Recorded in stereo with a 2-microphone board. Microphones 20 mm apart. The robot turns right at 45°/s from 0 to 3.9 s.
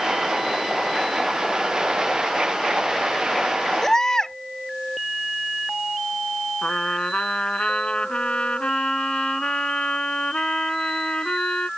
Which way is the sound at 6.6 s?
70° left (ahead or behind).